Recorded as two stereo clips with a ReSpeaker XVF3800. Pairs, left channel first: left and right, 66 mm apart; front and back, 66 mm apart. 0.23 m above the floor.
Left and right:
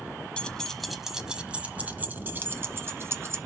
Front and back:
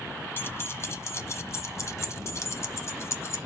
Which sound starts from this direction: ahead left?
Keys jangling, at 0.4 s.